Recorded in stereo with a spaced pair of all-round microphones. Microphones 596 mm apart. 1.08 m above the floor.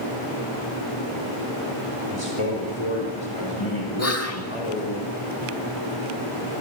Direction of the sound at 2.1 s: 60° left (ahead or behind).